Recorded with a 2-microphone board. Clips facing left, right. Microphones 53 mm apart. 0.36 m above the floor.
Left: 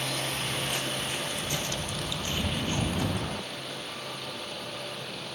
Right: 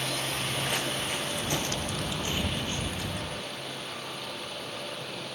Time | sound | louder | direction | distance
0.3 | footsteps | right 1 dB | 70° right (ahead or behind) | 2.5 m